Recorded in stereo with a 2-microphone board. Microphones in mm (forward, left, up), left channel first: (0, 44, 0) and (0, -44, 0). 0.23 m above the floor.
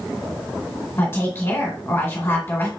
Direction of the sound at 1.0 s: 30° left (ahead or behind).